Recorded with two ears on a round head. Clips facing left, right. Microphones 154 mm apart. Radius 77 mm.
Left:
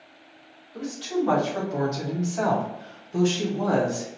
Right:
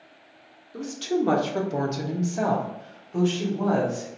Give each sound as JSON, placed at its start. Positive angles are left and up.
{"t": 0.7, "sound": "a woman speaking", "side_deg": -60, "distance_m": 1.2}